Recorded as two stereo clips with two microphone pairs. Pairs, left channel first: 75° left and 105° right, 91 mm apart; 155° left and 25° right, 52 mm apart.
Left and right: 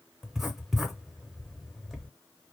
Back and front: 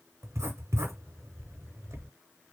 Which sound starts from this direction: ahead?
Writing, at 0.2 s.